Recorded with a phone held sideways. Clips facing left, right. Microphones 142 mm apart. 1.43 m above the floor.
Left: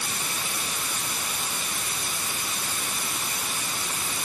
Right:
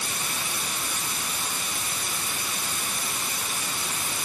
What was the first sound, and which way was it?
Only background noise.